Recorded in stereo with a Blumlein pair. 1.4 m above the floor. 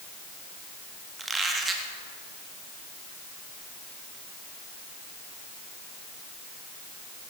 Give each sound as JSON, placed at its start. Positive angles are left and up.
{"t": 1.2, "sound": "a squeak", "azimuth_deg": -10, "distance_m": 1.9}